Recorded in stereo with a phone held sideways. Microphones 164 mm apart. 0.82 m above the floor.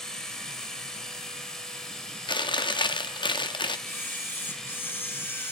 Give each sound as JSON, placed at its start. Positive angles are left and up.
{"t": 0.0, "sound": "a machine running", "side_deg": 5, "distance_m": 1.2}
{"t": 2.3, "sound": "chewing", "side_deg": 30, "distance_m": 0.6}
{"t": 3.9, "sound": "a camera shutter", "side_deg": 15, "distance_m": 0.8}